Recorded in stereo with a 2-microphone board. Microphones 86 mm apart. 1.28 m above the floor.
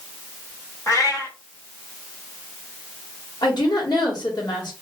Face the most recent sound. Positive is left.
turn(degrees=55)  # may be behind; listen again after turning